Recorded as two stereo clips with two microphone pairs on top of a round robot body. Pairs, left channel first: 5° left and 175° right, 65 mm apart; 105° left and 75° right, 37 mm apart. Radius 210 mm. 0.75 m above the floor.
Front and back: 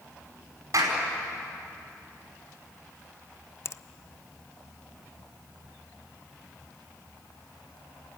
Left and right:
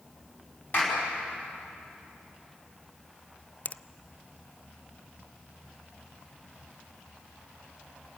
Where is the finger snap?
50° left, 0.6 m.